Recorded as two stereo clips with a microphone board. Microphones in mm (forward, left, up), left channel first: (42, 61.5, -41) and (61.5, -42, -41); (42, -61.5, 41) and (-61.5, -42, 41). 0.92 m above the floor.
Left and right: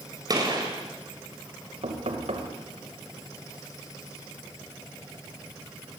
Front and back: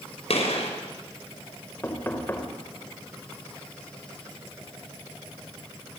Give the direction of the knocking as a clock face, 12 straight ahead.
3 o'clock.